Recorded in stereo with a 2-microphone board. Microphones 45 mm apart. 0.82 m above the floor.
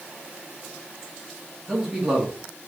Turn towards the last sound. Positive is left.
turn(degrees=-10)  # may be behind; listen again after turning